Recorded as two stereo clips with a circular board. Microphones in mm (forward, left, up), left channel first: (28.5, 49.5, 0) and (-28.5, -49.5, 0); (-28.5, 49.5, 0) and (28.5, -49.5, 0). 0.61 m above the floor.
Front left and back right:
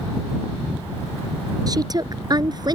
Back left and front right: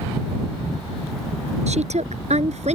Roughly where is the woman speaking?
Ahead right.